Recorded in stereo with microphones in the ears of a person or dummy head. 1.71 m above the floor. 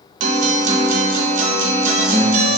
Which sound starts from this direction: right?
A guitar, at 0.2 s.